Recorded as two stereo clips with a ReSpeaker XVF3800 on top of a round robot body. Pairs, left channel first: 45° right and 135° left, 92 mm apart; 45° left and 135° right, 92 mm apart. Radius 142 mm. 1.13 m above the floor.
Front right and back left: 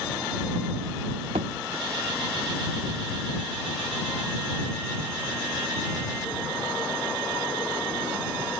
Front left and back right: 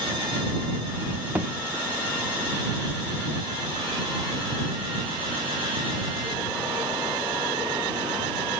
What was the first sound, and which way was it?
A thud, 155° left.